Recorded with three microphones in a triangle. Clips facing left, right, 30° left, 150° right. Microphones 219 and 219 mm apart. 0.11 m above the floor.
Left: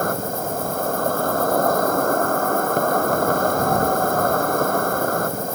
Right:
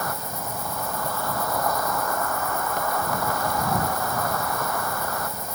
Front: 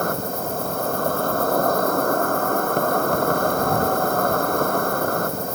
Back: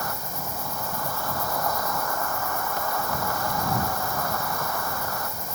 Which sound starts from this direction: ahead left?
An insect, at 0.0 s.